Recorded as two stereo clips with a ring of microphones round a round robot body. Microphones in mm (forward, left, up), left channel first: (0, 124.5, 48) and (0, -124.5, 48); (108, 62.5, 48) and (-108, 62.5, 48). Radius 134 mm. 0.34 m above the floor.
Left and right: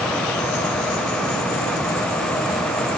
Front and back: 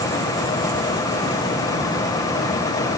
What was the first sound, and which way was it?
Only background noise.